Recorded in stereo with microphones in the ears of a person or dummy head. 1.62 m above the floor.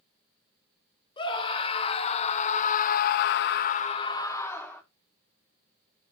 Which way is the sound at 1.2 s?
30° left (ahead or behind).